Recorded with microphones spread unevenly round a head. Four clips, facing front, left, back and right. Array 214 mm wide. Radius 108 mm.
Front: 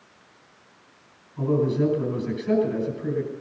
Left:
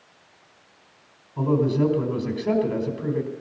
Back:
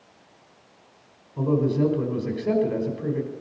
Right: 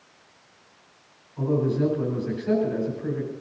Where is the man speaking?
130° left, 4.5 m.